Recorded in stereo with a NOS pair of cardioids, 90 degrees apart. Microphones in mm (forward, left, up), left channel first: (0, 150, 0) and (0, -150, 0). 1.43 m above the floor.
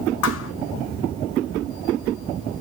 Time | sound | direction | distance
0.2 | a thud | 55° left | 5 m